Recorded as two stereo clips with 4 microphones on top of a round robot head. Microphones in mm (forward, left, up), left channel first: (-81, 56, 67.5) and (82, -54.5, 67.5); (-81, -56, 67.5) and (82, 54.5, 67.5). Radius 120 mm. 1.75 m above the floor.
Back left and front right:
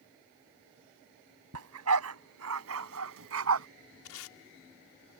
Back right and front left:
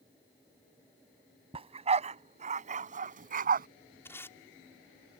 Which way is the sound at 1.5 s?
30° right.